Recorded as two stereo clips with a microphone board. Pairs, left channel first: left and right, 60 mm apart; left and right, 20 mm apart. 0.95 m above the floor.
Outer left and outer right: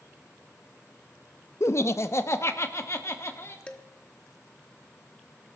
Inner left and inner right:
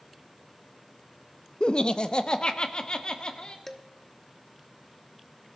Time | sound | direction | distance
1.6 | laughter | 50° left (ahead or behind) | 0.6 m
3.7 | dishes clattering | 20° left (ahead or behind) | 1.0 m